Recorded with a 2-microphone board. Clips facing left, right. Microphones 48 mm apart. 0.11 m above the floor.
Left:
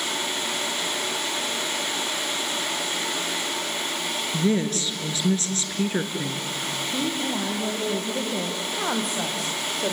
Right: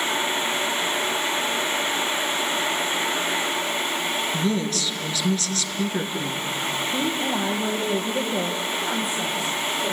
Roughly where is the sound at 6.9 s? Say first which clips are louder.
Right 1 dB; right.